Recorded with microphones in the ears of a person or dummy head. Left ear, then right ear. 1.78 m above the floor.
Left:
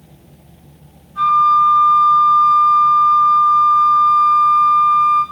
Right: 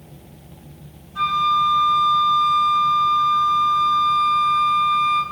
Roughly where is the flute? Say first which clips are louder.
Left 7 dB; right.